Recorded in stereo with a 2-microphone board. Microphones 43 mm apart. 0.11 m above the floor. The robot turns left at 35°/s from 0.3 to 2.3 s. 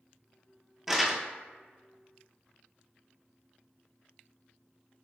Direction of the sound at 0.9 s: 5° right (ahead or behind).